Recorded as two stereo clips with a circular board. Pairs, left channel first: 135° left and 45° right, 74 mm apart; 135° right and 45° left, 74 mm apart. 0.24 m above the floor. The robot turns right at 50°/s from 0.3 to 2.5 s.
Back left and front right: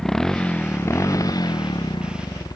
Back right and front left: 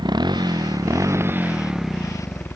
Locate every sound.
0.0 s a motorcycle: 55° left; by 2.6 s 165° left